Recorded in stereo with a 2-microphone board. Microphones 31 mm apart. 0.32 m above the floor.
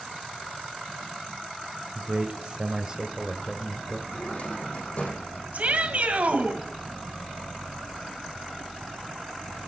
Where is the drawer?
50° left (ahead or behind), 3.5 m.